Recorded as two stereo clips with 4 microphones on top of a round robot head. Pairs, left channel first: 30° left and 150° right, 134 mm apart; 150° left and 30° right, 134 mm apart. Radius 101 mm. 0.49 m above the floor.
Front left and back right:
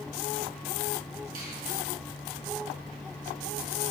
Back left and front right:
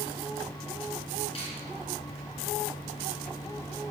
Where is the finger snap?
160° right, 5.5 m.